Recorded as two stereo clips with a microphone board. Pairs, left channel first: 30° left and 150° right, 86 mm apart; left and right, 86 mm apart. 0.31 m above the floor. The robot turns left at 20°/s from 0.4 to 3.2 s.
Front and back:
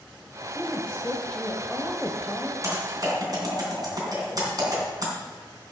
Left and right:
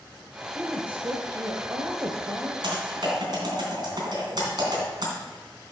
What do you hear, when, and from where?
0.6 s a woman speaking: 35° right, 1.1 m; by 2.5 s 75° right, 1.1 m
2.6 s typing on a keyboard: 105° right, 3 m; by 5.1 s 115° right, 3 m